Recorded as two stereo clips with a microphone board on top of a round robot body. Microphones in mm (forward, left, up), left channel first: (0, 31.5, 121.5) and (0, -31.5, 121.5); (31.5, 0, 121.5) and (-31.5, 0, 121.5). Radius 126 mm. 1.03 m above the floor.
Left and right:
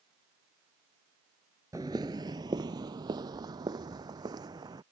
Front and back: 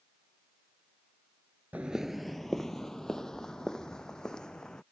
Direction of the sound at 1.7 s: 120° right.